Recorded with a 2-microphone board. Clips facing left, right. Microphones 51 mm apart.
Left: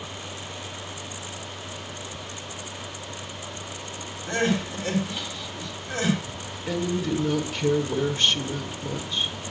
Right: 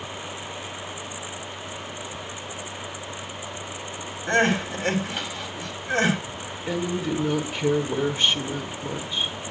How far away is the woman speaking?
About 1.3 m.